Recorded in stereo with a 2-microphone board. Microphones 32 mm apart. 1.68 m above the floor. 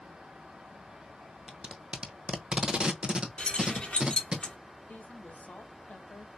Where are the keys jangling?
30° left (ahead or behind), 1.9 m.